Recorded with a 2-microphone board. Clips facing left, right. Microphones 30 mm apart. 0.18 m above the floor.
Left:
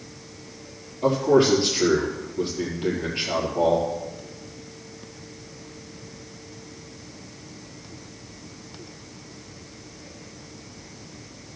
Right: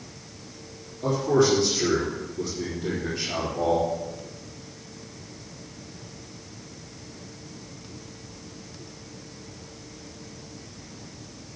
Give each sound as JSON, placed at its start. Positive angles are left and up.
{"t": 1.0, "sound": "a man speaking", "side_deg": 40, "distance_m": 4.0}